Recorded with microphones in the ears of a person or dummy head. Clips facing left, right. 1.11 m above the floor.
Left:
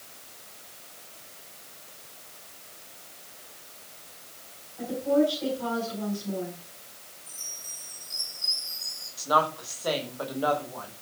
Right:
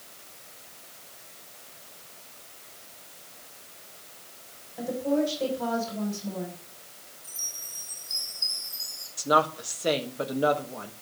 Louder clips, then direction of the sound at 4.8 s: Left 2 dB; 55° right (ahead or behind).